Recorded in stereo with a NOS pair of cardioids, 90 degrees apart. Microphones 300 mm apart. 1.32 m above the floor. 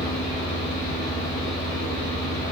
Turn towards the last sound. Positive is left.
turn(degrees=25)